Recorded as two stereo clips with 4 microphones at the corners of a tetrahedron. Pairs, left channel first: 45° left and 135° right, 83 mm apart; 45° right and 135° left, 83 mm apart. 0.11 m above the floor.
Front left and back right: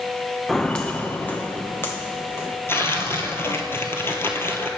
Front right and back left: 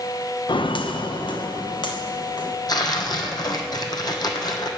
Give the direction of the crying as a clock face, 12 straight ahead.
No crying in this recording.